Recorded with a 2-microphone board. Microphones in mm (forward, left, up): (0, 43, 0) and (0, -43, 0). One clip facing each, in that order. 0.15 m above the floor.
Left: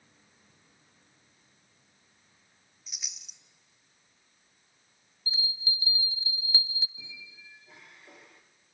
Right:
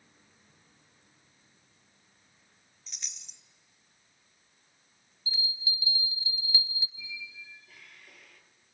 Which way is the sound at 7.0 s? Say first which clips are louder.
Right 6 dB; 25° left (ahead or behind).